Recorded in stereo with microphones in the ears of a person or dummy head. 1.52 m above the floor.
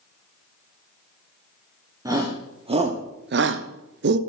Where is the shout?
10° right (ahead or behind), 1.3 m; by 4.2 s 65° right (ahead or behind), 0.8 m.